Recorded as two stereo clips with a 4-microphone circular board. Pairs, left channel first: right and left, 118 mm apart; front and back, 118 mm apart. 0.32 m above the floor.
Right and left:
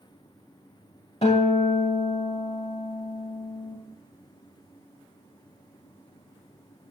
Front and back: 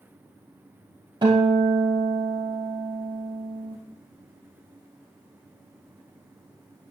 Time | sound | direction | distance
1.2 | a guitar | 125° right | 2 m